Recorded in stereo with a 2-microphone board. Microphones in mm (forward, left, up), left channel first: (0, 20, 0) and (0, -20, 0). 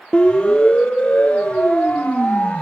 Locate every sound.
0.1 s a siren: 25° left (ahead or behind), 4 m; by 2.6 s 35° left (ahead or behind), 7 m